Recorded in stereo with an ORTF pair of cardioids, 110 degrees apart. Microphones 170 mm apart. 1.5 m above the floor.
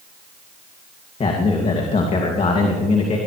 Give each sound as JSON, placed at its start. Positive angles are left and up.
{"t": 1.2, "sound": "a man speaking", "azimuth_deg": 40, "distance_m": 2.5}